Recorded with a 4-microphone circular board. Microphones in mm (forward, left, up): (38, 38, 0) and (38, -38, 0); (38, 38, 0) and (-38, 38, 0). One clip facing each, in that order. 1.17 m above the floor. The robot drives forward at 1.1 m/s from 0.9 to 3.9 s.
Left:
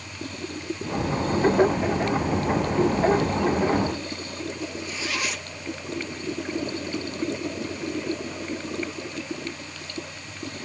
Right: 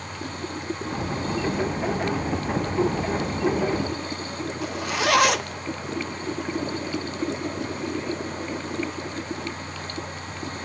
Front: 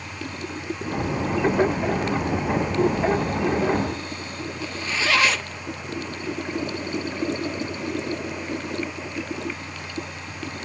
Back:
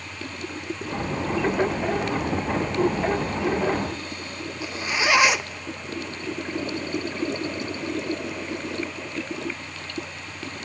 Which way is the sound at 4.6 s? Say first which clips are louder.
Right 7 dB, back 2 dB; 110° right.